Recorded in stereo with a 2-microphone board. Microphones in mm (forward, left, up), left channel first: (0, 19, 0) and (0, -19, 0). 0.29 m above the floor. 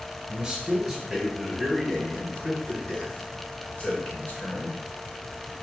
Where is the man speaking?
20° right (ahead or behind), 1.7 m; by 4.8 s 55° left (ahead or behind), 3 m.